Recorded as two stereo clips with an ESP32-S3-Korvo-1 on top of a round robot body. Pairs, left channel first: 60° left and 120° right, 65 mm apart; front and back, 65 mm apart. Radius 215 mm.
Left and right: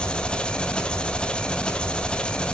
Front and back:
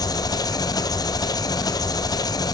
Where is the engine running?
15° right, 1.4 m.